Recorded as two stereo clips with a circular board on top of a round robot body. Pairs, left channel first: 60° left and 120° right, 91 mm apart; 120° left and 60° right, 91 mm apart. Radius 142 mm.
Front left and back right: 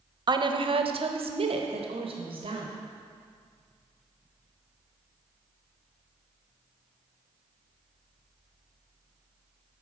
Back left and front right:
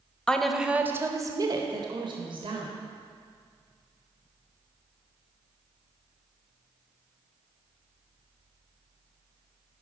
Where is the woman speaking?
160° right, 0.7 m; by 2.7 s 90° right, 1.4 m.